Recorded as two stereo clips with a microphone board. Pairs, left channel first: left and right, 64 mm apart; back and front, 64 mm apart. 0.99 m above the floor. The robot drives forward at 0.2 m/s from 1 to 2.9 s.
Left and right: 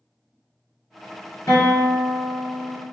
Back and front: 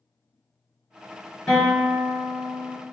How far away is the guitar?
About 2.0 m.